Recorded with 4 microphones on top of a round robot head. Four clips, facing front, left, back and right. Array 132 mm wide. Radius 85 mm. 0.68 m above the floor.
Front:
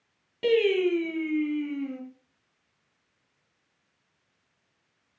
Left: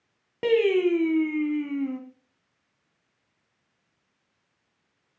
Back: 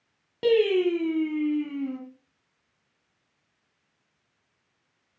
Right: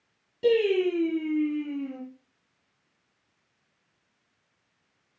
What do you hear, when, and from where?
0.4 s singing: 115° left, 1.7 m